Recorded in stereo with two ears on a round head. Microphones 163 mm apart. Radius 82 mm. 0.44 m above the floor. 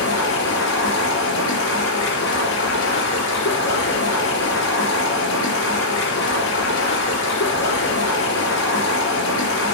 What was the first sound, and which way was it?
Running water, 70° left (ahead or behind).